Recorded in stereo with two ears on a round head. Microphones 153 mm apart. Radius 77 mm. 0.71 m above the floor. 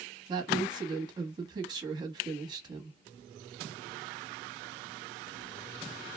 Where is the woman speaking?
25° right (ahead or behind), 1.1 m.